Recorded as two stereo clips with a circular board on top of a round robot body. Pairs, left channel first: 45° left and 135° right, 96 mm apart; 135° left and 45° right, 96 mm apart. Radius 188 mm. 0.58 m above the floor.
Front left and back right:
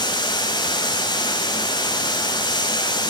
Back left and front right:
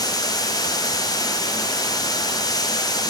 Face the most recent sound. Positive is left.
turn(degrees=85)